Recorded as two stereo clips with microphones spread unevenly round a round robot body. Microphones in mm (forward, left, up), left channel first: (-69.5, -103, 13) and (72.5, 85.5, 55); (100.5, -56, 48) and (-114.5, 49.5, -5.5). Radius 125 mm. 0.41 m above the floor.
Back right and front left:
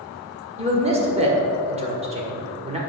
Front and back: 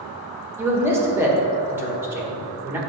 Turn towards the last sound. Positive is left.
turn(degrees=110)